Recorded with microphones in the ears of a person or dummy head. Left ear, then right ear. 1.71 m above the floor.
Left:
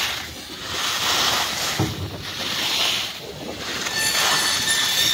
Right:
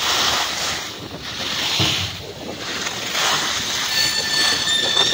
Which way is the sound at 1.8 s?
40° left (ahead or behind).